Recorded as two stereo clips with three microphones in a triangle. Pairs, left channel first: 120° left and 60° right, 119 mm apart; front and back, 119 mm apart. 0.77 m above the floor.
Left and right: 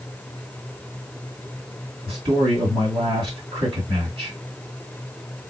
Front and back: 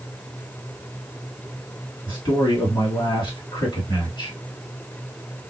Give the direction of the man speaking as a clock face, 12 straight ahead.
1 o'clock.